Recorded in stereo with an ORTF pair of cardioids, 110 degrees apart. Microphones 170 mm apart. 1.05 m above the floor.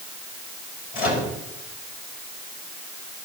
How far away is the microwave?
About 5 m.